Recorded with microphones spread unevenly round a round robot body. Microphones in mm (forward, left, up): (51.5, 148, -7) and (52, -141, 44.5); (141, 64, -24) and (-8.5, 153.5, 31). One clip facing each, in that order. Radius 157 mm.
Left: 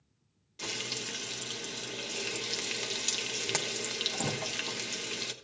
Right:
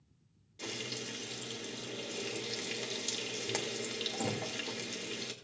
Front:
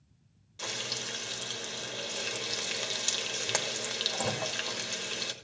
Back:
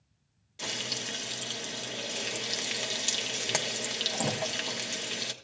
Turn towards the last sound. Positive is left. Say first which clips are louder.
# even, back 1 dB
turn(degrees=65)